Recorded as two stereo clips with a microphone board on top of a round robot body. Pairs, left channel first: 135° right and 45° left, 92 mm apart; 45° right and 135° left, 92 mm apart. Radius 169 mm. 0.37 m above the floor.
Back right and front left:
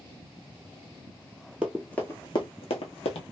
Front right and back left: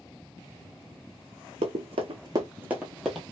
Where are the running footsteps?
120° left, 0.6 m; by 3.3 s 130° right, 0.9 m.